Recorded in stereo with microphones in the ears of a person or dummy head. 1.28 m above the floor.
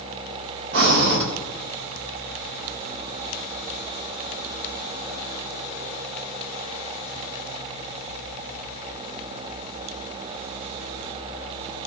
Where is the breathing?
55° right (ahead or behind), 1.7 m.